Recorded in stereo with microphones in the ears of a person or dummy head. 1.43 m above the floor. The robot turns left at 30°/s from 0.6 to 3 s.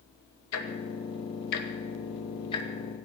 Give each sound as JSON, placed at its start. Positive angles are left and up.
{"t": 0.5, "sound": "ticking", "side_deg": 85, "distance_m": 2.0}